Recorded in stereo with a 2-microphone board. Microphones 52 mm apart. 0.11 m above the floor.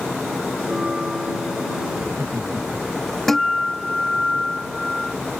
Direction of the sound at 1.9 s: 50° right (ahead or behind).